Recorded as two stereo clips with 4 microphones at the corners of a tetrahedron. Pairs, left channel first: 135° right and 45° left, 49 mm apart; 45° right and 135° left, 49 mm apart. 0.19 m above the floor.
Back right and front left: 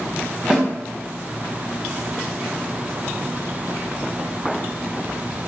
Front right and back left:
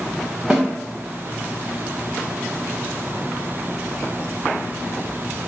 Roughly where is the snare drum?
Left.